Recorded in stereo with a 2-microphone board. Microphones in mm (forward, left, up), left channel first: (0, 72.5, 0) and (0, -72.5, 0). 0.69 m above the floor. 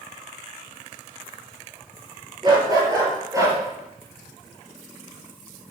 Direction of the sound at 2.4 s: 30° right (ahead or behind).